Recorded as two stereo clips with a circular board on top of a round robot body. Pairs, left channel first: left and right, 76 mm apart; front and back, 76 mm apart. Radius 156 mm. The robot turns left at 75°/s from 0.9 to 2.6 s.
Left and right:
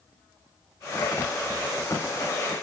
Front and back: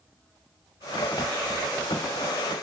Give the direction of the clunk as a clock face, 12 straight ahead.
I don't hear a clunk.